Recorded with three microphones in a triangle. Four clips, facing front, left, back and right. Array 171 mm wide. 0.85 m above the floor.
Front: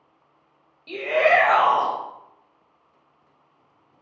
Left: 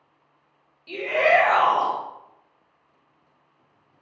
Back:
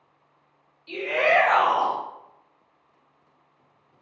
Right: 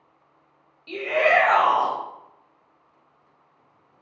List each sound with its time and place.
0.9 s a shout: 5° left, 1.0 m